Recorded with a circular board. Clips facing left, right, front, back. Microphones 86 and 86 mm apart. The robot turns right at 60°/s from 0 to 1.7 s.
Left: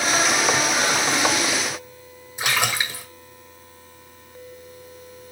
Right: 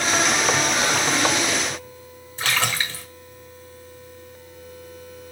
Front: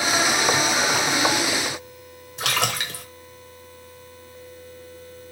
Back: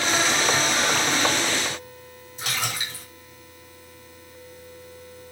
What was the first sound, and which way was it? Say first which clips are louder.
A splash: left 1 dB, front 5 dB; 15° left.